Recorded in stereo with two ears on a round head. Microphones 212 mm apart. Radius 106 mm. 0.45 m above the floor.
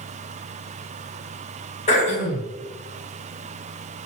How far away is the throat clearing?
About 1.5 m.